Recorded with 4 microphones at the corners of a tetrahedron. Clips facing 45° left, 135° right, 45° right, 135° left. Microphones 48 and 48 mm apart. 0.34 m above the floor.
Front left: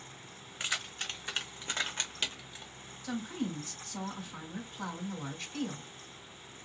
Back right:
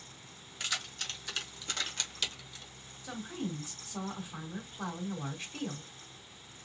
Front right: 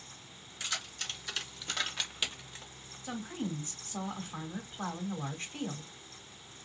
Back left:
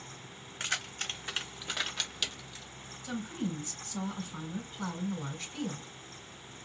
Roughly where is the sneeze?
I don't hear a sneeze.